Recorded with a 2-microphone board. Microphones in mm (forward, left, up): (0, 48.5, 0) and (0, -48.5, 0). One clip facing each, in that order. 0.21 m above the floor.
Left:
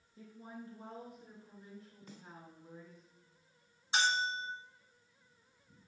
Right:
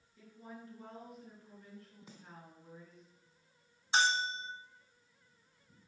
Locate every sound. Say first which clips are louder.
0.2 s a woman speaking: left 2 dB; 25° left (ahead or behind), 3 m; by 3.1 s centre (ahead or behind), 2 m
2.1 s a snare drum: left 4 dB; 10° right (ahead or behind), 1.1 m
3.9 s a bell: right 1 dB; 35° right (ahead or behind), 1.1 m